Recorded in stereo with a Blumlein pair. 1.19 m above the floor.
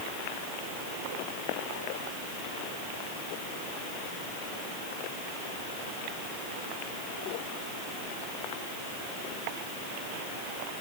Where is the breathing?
No breathing in this recording.